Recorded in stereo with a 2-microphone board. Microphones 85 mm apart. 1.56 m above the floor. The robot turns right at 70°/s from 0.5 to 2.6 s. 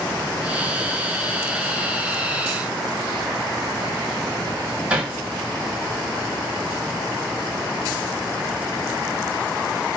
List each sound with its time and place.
4.9 s hammering: 15° right (ahead or behind), 2.5 m